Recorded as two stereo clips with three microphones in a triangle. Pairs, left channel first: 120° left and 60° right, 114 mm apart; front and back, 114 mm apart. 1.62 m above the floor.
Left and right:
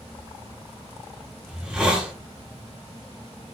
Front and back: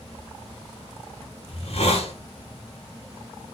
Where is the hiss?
20° left, 2 m.